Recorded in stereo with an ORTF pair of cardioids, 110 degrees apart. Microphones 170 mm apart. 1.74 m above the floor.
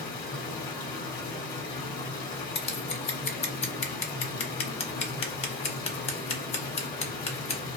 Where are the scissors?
35° left, 0.7 m.